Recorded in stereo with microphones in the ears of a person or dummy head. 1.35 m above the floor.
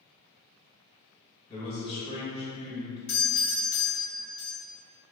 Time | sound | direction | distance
1.5 | a man speaking | 25° left (ahead or behind) | 1.6 m
3.1 | a doorbell | 60° left (ahead or behind) | 0.8 m